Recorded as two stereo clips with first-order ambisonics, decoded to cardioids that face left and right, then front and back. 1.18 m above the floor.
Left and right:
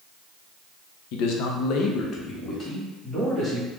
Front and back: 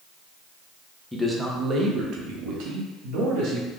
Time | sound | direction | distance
1.1 | a man speaking | 90° left | 0.6 m